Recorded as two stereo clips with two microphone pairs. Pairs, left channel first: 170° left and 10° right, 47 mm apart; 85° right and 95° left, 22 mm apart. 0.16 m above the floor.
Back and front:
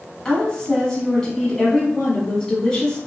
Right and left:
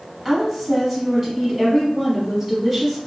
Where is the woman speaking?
140° left, 1.0 m.